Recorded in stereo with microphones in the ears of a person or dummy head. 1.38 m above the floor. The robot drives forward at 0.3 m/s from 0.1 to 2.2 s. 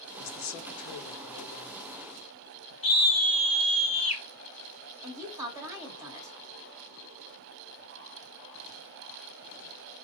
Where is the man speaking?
60° left (ahead or behind), 0.8 m; by 2.7 s 55° left (ahead or behind), 0.9 m.